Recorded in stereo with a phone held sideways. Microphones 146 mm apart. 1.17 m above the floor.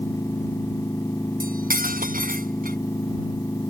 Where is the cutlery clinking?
75° right (ahead or behind).